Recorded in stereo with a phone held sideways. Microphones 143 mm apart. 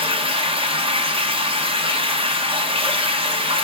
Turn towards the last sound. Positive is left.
turn(degrees=-40)  # may be behind; listen again after turning